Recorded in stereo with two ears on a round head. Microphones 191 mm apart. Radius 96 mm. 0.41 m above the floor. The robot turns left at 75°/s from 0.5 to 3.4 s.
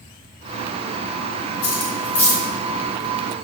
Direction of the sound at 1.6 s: 50° left (ahead or behind).